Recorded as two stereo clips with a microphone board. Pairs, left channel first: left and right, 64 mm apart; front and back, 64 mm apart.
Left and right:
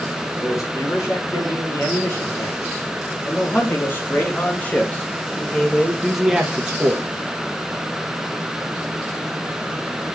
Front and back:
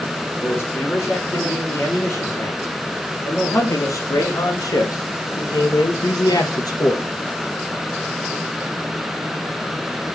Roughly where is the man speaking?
Ahead left.